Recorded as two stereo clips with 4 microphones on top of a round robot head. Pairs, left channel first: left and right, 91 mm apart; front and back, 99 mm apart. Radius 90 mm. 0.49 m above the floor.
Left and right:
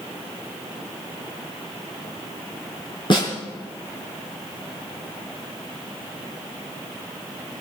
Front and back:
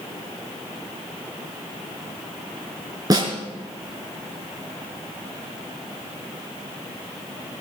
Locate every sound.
3.1 s a snare drum: 125° left, 5.5 m